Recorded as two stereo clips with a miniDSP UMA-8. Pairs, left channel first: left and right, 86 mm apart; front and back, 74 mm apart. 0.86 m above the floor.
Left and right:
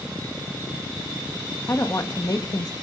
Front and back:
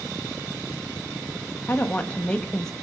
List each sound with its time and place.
1.7 s a woman speaking: 50° left, 1.4 m; by 2.7 s 85° left, 1.2 m